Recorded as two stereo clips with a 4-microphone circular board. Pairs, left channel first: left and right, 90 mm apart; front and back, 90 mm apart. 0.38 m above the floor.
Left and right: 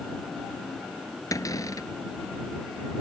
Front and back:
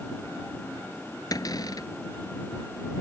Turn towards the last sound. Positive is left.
turn(degrees=40)